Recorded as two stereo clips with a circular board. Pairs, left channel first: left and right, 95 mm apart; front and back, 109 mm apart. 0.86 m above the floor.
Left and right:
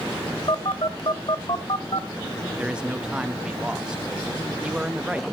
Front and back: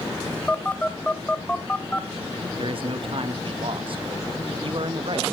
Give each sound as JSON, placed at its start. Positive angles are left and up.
{"t": 0.5, "sound": "a phone buzzing", "azimuth_deg": 75, "distance_m": 1.2}
{"t": 2.6, "sound": "a man speaking", "azimuth_deg": -170, "distance_m": 1.1}